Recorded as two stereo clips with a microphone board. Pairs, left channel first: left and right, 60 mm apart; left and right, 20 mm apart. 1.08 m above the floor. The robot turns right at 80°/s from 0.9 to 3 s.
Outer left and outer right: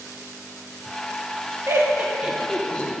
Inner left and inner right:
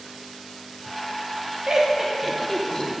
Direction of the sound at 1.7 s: 45° right (ahead or behind).